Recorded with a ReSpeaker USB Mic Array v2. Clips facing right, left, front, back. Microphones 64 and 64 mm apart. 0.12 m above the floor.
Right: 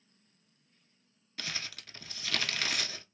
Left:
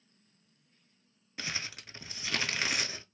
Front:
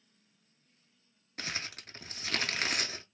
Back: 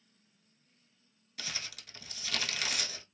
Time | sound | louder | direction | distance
1.4 | crumpling | left 2 dB, front 4 dB | 25° left | 0.6 m